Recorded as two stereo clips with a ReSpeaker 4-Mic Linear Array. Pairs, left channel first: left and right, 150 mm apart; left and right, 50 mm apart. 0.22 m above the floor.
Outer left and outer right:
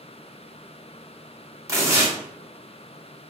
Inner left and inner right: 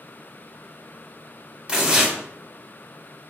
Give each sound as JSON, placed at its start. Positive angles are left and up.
{"t": 1.7, "sound": "tearing paper", "side_deg": -20, "distance_m": 0.9}